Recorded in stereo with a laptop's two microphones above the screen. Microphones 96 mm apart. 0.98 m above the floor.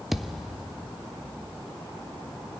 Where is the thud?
5° right (ahead or behind), 0.6 m.